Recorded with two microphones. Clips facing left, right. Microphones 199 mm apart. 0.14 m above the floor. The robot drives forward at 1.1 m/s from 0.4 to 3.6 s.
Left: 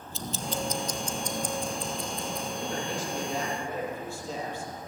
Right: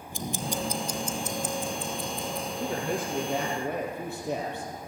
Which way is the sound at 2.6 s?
50° right (ahead or behind).